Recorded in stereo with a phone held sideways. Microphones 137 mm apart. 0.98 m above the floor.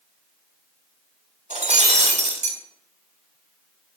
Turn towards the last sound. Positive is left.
turn(degrees=-60)  # may be behind; listen again after turning